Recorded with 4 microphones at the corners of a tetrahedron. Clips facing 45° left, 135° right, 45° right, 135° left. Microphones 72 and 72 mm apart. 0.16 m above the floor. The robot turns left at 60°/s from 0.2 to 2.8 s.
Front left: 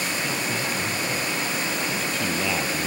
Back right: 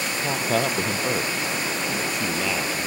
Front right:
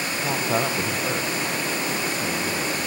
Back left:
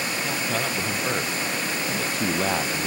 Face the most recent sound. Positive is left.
turn(degrees=110)